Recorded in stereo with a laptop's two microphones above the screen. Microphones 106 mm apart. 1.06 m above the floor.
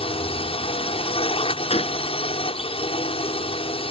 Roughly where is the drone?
Left.